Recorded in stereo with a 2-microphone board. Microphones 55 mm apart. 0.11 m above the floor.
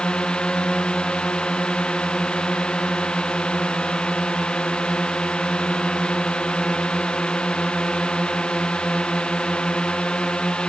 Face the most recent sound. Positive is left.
turn(degrees=20)  # may be behind; listen again after turning